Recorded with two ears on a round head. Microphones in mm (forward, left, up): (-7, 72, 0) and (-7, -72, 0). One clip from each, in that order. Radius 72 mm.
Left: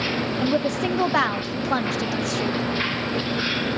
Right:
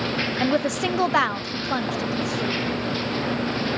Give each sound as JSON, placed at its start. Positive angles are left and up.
{"t": 0.4, "sound": "a woman speaking", "side_deg": -50, "distance_m": 0.7}